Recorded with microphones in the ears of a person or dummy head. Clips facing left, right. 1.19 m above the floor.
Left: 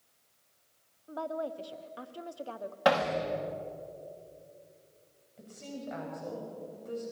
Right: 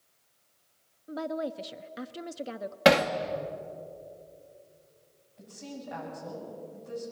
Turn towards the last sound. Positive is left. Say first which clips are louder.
# even
turn(degrees=40)  # may be behind; listen again after turning